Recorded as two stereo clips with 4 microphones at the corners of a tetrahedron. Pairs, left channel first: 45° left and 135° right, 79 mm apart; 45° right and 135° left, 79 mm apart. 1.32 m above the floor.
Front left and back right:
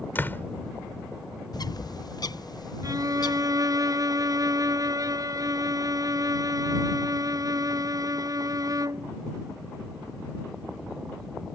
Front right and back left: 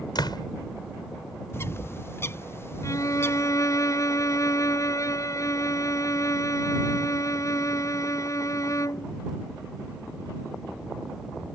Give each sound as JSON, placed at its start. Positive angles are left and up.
{"t": 0.1, "sound": "a door slam", "azimuth_deg": -20}
{"t": 1.5, "sound": "a bird", "azimuth_deg": 10}
{"t": 2.8, "sound": "a violin", "azimuth_deg": -95}